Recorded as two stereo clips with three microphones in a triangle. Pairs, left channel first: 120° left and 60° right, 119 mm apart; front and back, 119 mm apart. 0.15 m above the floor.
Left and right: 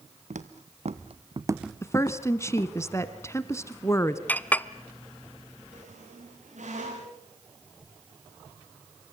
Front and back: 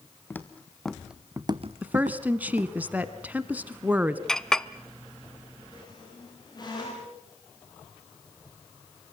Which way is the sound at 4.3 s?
75° left.